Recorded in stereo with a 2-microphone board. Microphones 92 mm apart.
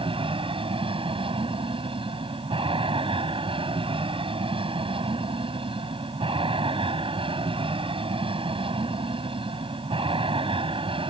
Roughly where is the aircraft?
Right.